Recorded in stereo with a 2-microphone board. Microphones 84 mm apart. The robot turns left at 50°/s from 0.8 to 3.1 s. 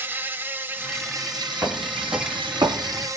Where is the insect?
25° right, 0.8 m; by 3.2 s 140° right, 0.8 m.